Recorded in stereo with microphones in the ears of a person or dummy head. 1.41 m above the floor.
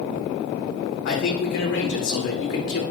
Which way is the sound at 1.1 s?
50° left (ahead or behind).